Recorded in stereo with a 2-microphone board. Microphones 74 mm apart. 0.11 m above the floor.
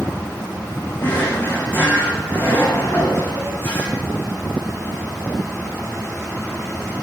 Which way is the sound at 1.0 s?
30° left (ahead or behind).